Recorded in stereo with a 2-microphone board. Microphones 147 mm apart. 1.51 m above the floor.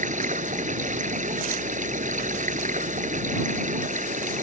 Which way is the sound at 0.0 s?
60° right (ahead or behind).